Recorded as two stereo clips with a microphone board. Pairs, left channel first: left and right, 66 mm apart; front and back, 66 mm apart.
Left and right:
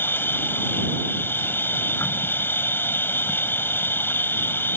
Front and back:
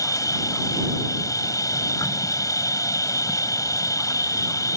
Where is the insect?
30° left.